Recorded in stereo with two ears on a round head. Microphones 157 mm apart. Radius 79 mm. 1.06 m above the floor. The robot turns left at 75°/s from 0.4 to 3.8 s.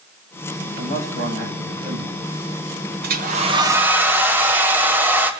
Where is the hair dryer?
110° right, 1.5 m; by 5.3 s 165° right, 1.5 m.